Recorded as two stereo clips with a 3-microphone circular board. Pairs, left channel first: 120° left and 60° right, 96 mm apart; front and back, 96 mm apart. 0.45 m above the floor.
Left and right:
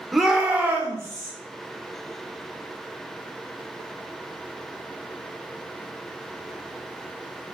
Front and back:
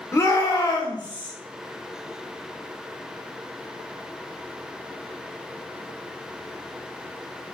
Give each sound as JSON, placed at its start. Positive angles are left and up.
{"t": 0.1, "sound": "a shout", "azimuth_deg": 30, "distance_m": 1.0}